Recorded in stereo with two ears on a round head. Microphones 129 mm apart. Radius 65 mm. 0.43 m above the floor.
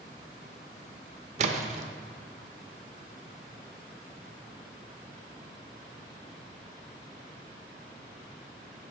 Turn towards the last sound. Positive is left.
turn(degrees=-50)  # may be behind; listen again after turning